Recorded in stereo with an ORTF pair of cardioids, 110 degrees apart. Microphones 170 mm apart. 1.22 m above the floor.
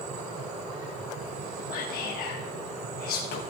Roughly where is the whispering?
Ahead left.